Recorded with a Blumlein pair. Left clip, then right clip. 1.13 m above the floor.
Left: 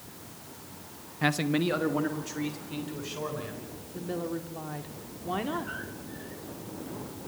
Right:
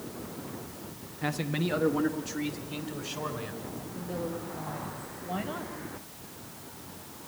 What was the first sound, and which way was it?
A man speaking, 30° left.